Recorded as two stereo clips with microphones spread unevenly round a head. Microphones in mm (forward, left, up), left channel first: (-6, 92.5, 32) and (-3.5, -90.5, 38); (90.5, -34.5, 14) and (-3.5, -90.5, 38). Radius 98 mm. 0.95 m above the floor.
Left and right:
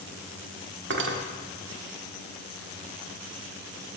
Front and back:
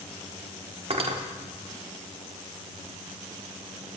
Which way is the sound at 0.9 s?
115° right.